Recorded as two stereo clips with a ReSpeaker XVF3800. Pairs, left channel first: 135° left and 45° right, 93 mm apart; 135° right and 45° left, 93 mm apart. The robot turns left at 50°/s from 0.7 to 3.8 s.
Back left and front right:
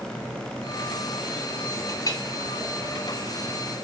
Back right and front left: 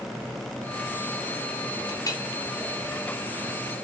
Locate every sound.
1.9 s a clink: 175° right, 1.9 m; by 2.2 s 170° left, 1.9 m